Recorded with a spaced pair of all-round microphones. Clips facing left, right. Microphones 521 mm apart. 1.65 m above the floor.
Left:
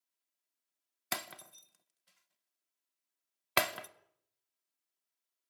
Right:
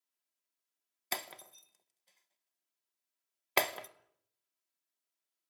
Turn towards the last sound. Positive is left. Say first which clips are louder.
# even
turn(degrees=35)  # may be behind; listen again after turning